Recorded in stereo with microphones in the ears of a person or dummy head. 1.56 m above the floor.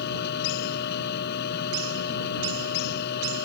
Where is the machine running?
60° left (ahead or behind).